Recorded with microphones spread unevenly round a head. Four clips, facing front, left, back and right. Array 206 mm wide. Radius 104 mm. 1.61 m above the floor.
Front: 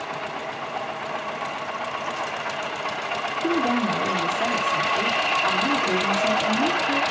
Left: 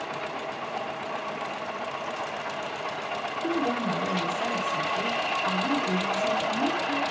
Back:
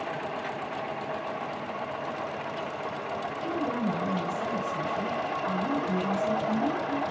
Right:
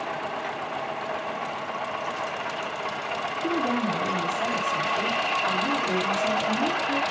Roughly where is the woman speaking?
Ahead.